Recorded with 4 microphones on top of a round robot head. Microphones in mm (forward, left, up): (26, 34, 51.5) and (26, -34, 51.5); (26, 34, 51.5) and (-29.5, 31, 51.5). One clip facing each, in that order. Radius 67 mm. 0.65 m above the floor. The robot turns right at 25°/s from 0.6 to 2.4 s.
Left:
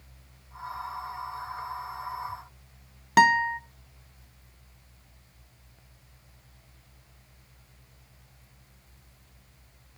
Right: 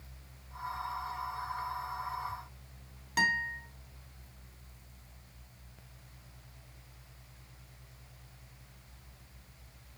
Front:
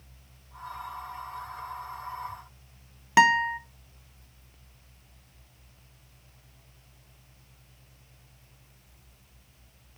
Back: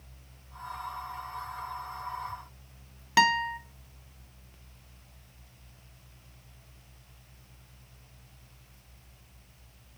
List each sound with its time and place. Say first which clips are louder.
3.2 s a guitar: left 11 dB, front 4 dB; 70° left, 0.6 m